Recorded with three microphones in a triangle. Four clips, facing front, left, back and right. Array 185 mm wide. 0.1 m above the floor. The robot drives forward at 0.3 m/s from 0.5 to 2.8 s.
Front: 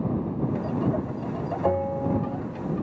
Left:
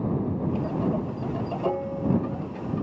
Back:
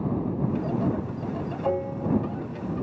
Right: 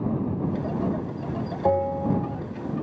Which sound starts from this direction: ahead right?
A bell, at 1.6 s.